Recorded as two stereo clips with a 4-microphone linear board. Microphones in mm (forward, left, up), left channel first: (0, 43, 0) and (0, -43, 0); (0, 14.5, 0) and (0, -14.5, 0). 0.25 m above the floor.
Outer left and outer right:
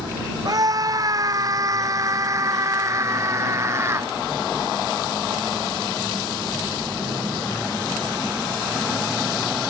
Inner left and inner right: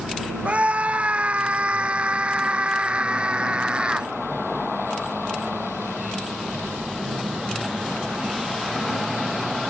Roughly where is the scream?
Right.